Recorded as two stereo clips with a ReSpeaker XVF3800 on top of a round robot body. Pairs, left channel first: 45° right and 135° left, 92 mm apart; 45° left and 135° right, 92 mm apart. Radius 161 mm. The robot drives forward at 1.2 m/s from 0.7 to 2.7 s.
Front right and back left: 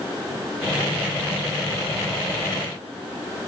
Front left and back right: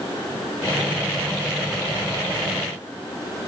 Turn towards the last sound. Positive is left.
No sound to turn to.